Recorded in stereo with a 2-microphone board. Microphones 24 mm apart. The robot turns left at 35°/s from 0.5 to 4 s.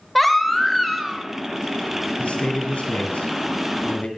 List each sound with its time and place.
0.1 s a baby crying: centre (ahead or behind), 1.1 m; by 1.2 s 20° right (ahead or behind), 1.1 m
2.2 s a man speaking: 120° left, 2 m; by 4.1 s 60° left, 2 m